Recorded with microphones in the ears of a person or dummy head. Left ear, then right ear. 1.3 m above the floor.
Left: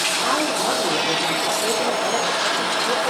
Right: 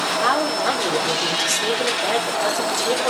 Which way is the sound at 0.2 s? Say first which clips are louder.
Right 1 dB; 60° right (ahead or behind).